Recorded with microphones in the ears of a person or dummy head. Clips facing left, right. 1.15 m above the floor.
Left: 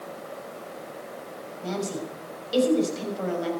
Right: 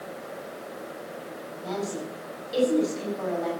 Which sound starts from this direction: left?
A woman speaking, at 1.6 s.